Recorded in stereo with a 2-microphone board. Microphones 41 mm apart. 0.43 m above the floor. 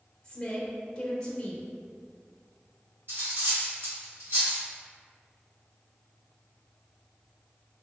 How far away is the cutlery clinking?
About 1.4 m.